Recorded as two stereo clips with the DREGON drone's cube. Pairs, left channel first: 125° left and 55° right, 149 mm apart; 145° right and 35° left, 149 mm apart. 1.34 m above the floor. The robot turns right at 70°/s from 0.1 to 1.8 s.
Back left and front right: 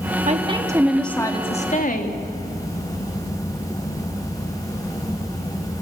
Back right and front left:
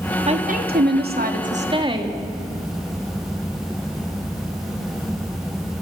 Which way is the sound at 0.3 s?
15° right.